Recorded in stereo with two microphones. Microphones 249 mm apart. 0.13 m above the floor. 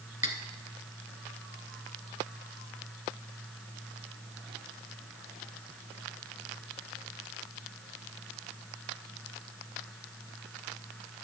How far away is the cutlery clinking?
About 0.8 m.